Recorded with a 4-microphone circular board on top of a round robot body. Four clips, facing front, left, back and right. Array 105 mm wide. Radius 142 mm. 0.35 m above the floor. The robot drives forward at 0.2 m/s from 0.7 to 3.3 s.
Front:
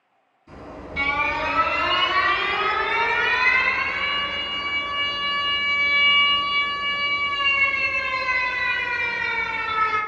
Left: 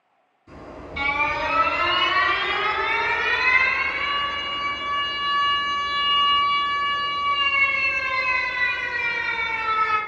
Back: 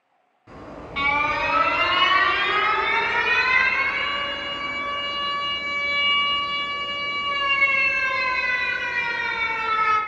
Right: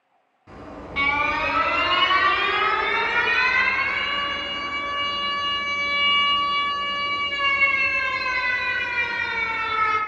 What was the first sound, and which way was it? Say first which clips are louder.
An alarm: right 1 dB, even; 130° right.